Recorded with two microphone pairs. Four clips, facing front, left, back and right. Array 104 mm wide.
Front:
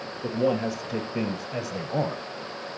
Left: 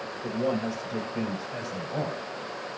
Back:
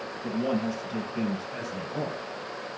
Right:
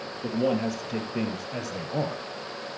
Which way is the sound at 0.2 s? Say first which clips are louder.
Right 3 dB, front 3 dB; 35° right.